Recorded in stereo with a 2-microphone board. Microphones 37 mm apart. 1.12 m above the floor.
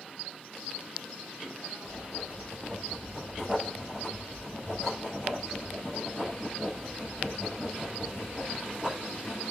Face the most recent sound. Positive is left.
turn(degrees=-20)  # may be behind; listen again after turning